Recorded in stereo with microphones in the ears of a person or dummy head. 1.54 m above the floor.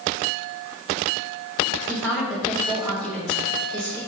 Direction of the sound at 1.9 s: Centre (ahead or behind).